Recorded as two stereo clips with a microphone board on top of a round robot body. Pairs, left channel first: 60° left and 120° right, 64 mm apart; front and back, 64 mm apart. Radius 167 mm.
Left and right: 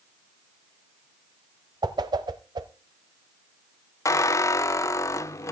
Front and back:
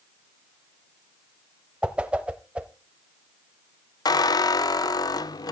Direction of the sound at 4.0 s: 20° left.